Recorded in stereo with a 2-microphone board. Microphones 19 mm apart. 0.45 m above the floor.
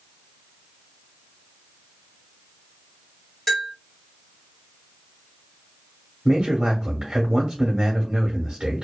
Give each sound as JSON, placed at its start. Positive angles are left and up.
{"t": 3.5, "sound": "a bell", "side_deg": 15, "distance_m": 1.3}
{"t": 6.2, "sound": "a man speaking", "side_deg": -40, "distance_m": 0.9}